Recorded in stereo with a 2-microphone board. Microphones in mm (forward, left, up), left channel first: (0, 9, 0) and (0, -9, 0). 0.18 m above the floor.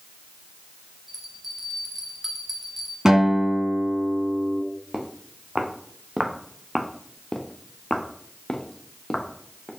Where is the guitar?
30° right (ahead or behind), 1.7 m.